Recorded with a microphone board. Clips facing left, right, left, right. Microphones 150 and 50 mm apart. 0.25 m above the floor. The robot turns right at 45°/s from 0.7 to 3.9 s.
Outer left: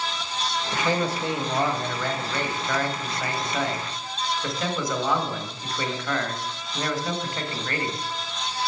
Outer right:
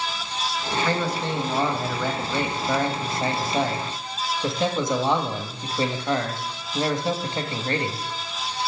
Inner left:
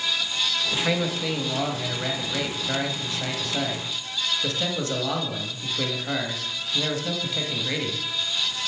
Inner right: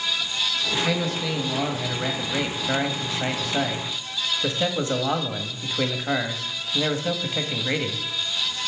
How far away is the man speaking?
About 1.1 m.